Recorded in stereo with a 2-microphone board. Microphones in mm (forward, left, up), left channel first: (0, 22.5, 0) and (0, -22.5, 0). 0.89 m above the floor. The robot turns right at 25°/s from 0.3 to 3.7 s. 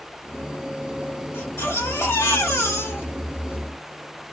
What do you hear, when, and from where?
1.3 s a baby crying: 70° left, 1.9 m; by 3.6 s 125° left, 1.9 m